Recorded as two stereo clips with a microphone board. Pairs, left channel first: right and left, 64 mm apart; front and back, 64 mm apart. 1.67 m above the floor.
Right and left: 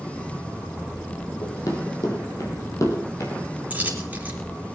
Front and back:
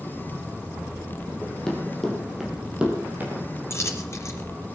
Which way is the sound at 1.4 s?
75° right.